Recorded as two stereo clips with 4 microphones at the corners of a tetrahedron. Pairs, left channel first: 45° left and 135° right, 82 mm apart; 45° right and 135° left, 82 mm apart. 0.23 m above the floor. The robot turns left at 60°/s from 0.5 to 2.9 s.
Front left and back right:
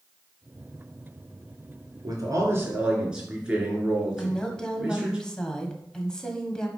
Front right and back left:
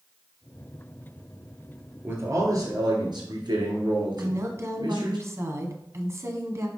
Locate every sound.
2.0 s a man speaking: 160° right, 3.5 m; by 5.2 s 145° left, 3.5 m
4.2 s a woman speaking: 120° left, 1.5 m